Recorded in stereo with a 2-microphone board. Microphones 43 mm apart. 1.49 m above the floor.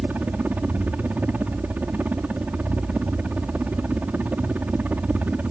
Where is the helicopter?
40° right (ahead or behind).